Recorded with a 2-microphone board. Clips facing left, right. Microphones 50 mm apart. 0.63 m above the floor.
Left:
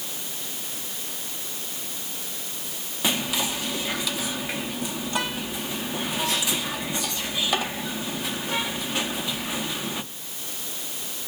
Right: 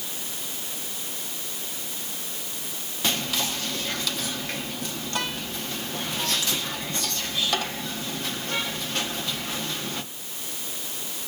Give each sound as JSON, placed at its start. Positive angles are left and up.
{"t": 3.0, "sound": "whispering", "side_deg": 10, "distance_m": 0.5}